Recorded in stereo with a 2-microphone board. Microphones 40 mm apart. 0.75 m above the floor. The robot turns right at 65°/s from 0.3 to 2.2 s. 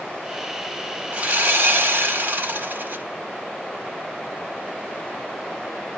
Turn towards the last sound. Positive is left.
turn(degrees=-65)